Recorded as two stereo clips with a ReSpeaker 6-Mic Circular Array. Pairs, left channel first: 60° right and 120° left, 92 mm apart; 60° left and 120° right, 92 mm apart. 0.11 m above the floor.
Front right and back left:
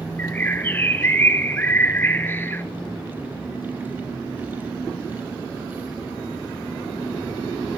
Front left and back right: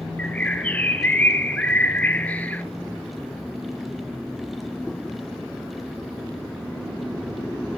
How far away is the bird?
About 0.6 m.